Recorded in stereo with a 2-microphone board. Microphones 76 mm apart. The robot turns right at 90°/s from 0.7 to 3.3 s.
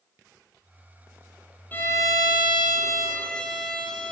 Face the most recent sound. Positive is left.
turn(degrees=165)